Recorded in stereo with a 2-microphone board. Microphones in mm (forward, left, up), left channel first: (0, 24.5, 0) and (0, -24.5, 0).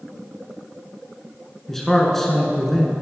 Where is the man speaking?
10° left (ahead or behind), 1.2 m.